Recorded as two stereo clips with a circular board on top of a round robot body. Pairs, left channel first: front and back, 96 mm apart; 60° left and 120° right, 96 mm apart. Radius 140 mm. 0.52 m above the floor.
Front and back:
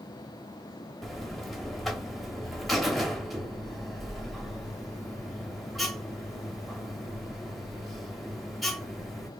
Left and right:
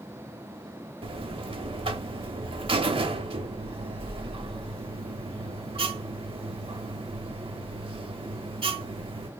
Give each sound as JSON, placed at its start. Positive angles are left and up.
{"t": 1.0, "sound": "a buzzer", "azimuth_deg": -90, "distance_m": 0.7}